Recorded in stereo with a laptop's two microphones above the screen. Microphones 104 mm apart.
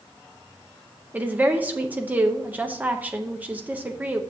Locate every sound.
1.1 s a woman speaking: 15° right (ahead or behind), 0.8 m